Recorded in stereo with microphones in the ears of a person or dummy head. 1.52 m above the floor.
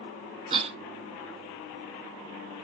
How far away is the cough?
About 0.5 m.